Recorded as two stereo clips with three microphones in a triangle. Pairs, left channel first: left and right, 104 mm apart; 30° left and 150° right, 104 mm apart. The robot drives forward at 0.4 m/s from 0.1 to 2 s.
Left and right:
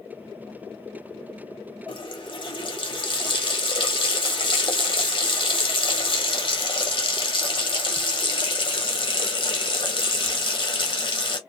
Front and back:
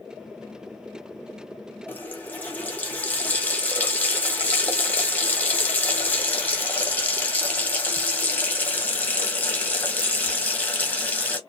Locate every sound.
1.9 s a running tap: 95° left, 1.0 m; by 11.4 s 100° left, 1.0 m